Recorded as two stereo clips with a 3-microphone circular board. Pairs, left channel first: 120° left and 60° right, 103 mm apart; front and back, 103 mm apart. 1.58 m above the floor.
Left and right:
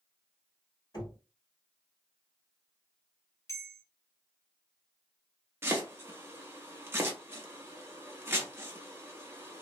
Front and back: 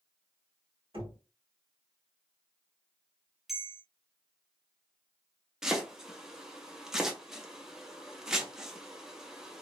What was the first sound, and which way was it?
Knocking, 160° left.